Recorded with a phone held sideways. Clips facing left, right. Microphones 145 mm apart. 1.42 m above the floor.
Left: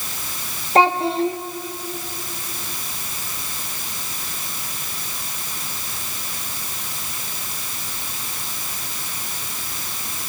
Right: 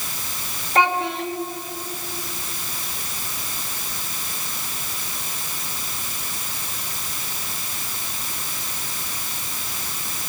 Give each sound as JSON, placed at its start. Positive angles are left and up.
{"t": 0.8, "sound": "a child speaking", "side_deg": 35, "distance_m": 1.1}